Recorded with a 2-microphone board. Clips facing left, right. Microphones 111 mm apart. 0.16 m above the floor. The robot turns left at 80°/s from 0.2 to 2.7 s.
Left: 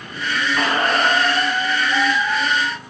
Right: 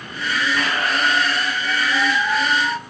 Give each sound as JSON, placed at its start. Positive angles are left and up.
{"t": 0.6, "sound": "a squeak", "azimuth_deg": 140, "distance_m": 0.5}